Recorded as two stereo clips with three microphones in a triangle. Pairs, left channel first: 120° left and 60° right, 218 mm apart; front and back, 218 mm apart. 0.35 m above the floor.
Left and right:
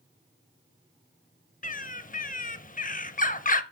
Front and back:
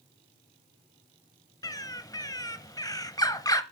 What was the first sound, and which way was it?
A bird, 70° left.